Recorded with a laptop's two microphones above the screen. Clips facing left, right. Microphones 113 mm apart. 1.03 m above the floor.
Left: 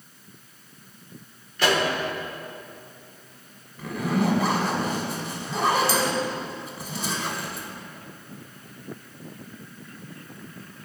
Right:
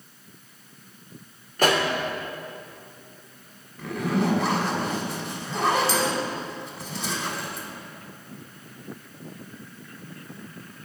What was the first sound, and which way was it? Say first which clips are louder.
A pop: right 1 dB; 45° right (ahead or behind).